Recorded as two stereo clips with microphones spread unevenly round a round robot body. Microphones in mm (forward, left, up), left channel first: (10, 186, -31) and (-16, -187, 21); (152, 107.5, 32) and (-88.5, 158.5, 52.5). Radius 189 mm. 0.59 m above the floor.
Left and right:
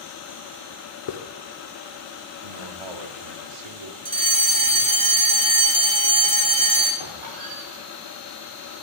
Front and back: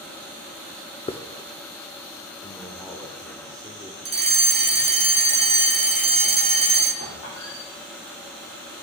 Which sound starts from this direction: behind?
A fire alarm, at 4.0 s.